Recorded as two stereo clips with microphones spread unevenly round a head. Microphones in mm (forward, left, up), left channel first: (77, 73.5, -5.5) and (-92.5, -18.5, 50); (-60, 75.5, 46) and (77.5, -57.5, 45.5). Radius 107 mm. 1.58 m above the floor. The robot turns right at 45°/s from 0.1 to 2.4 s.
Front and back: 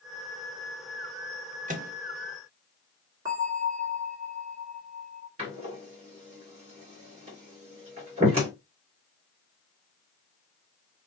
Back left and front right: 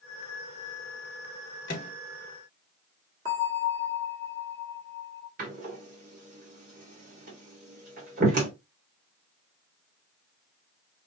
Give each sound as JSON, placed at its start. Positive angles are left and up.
{"t": 1.7, "sound": "a microwave", "azimuth_deg": 175, "distance_m": 1.1}
{"t": 3.2, "sound": "a bell", "azimuth_deg": -95, "distance_m": 1.6}
{"t": 5.4, "sound": "a door slam", "azimuth_deg": -95, "distance_m": 2.5}